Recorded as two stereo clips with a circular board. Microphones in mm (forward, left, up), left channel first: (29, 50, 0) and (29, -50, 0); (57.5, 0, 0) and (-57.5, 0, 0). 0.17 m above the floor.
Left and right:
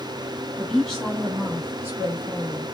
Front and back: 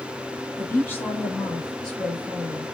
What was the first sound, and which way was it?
A woman speaking, 20° left.